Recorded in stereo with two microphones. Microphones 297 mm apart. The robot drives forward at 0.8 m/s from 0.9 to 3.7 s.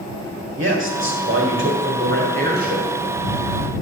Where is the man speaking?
45° right (ahead or behind), 1.6 m; by 3.0 s 30° right (ahead or behind), 2 m.